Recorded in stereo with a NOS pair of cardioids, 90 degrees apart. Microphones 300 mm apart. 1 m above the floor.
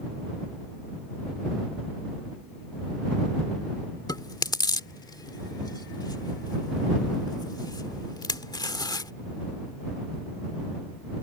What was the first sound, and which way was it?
Chewing, 15° left.